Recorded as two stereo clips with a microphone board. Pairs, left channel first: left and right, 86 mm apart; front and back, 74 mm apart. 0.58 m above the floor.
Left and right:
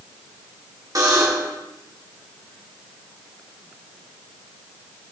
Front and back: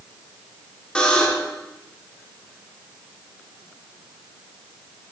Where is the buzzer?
70° right, 1.5 m.